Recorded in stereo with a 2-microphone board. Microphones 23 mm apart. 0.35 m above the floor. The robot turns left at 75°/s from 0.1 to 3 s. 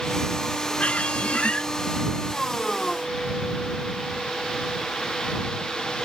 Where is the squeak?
115° left; by 1.7 s 50° left.